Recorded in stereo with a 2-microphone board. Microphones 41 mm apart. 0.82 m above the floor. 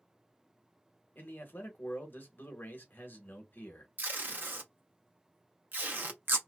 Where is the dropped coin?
No dropped coin in this recording.